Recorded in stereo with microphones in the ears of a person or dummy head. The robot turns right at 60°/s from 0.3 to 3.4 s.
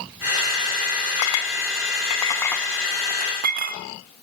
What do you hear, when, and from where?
1.2 s a clink: 85° left, 1.0 m; by 3.8 s 50° right (ahead or behind), 1.0 m